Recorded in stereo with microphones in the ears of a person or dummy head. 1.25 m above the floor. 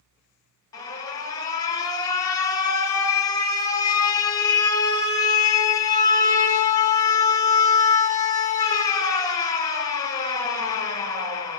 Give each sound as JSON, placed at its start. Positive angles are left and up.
{"t": 0.7, "sound": "an alarm", "side_deg": 15, "distance_m": 0.6}